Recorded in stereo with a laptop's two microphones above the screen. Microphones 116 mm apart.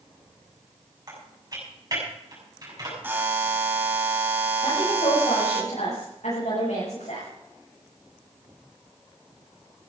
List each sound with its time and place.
1.1 s typing on a keyboard: 30° right (ahead or behind), 7 m
3.0 s a buzzer: 20° right (ahead or behind), 3.5 m
4.6 s a woman speaking: 75° left (ahead or behind), 7.5 m